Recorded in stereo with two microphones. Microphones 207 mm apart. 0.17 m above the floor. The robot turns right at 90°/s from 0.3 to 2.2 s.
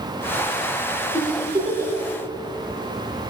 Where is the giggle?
15° left (ahead or behind), 2.5 m; by 1.9 s 55° right (ahead or behind), 2.5 m.